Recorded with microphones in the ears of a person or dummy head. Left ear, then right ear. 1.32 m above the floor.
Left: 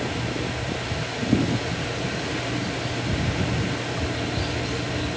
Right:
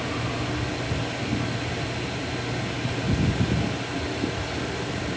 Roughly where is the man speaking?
No man speaking in this recording.